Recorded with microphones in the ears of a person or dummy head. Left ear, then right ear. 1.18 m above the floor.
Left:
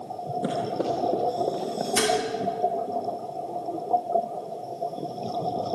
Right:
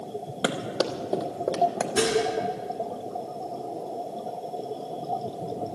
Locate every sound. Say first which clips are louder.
0.4 s running footsteps: right 1 dB; 45° right (ahead or behind), 1.7 m; by 1.9 s 60° right (ahead or behind), 2.5 m
2.0 s dishes clattering: left 1 dB; 50° left (ahead or behind), 2 m